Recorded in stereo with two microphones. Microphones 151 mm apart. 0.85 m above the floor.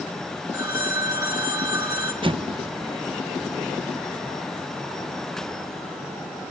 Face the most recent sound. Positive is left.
turn(degrees=-35)  # may be behind; listen again after turning